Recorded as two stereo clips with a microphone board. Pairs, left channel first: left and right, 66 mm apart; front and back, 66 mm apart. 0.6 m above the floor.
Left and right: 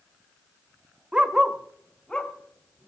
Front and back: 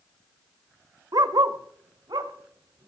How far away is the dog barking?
About 0.9 m.